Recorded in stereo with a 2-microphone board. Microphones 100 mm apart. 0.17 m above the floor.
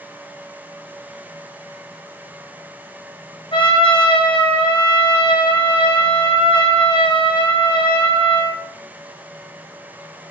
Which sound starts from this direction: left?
A trumpet, at 3.5 s.